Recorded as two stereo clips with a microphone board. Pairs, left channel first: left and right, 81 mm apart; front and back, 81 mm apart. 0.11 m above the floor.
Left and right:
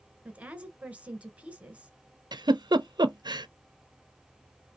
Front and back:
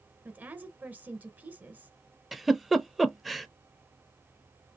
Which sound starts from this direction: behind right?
A woman speaking, at 0.2 s.